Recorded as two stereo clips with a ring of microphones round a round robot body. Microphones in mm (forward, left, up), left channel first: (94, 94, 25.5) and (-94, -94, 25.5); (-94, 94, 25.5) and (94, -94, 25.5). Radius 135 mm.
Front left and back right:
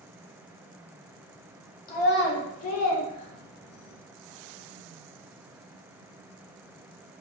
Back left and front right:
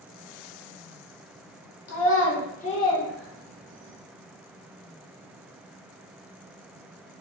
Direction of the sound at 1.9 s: 105° left.